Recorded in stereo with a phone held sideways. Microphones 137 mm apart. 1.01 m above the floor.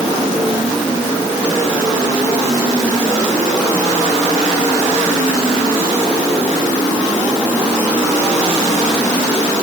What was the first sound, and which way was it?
Only background noise.